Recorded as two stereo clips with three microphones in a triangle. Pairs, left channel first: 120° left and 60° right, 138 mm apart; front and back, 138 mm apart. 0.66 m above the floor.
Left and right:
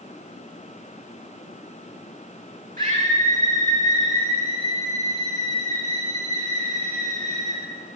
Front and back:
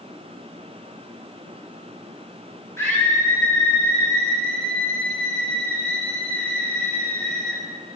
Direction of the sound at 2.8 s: 70° right.